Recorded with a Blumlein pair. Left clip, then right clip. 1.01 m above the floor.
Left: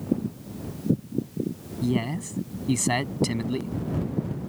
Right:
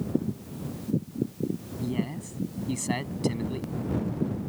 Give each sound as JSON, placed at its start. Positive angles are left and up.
{"t": 1.8, "sound": "a man speaking", "azimuth_deg": 20}